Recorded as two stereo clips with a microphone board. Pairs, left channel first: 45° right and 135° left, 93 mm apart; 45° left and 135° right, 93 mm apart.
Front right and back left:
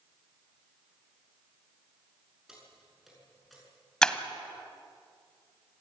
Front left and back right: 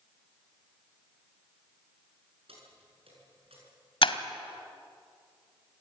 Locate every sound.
2.5 s keys jangling: 140° right, 7 m; by 3.6 s 135° right, 7 m
4.0 s breaking glass: 35° left, 1.2 m